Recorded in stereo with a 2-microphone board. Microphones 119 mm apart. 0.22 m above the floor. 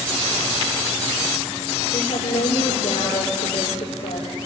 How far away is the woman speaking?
About 7 m.